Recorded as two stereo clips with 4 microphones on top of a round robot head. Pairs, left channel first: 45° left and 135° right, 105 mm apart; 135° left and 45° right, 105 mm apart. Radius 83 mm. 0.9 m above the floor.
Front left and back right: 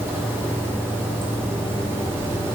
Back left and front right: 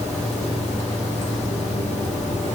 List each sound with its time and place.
0.0 s running water: 155° left, 2 m